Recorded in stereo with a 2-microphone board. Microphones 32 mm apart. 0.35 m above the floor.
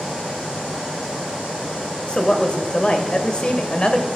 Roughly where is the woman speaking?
Left.